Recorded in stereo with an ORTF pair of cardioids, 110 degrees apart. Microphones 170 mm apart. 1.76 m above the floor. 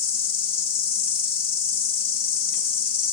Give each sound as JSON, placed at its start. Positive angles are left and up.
{"t": 0.0, "sound": "an insect", "azimuth_deg": 60, "distance_m": 1.4}